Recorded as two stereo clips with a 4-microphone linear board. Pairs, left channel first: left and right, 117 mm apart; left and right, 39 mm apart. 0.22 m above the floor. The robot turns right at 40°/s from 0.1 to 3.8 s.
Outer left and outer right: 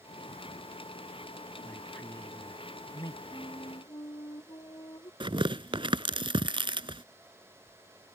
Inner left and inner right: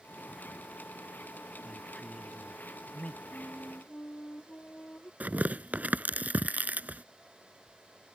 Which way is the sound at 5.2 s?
50° right (ahead or behind).